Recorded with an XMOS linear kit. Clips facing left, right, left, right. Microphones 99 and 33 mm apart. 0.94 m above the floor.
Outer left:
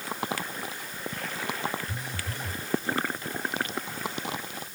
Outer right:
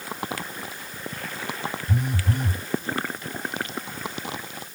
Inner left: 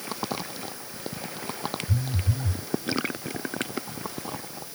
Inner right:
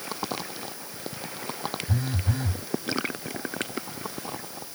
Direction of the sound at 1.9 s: 60° right (ahead or behind).